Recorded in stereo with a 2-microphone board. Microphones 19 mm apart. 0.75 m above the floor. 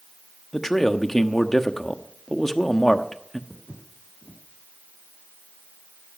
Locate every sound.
0.5 s a man speaking: 25° left (ahead or behind), 1.1 m
3.5 s footsteps: 35° right (ahead or behind), 3.5 m